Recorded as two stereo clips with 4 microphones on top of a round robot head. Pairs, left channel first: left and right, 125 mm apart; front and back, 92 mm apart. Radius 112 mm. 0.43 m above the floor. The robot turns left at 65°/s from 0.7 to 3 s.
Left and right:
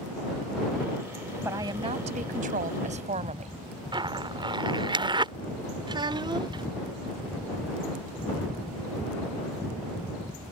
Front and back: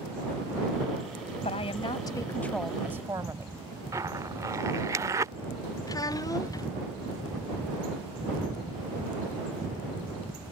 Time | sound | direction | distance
1.4 | a woman speaking | 15° right | ?
3.9 | a zipper | 135° right | ?
5.9 | a child speaking | 45° right | ?